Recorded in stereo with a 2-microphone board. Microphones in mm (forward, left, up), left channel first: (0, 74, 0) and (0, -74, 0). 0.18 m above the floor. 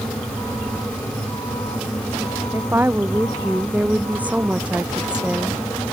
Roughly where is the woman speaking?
Centre.